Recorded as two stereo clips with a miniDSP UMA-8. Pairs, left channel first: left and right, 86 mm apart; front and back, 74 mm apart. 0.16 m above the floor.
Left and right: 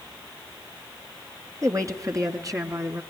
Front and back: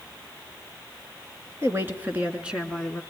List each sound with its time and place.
1.6 s a woman speaking: 130° right, 2.5 m; by 3.0 s 85° right, 1.8 m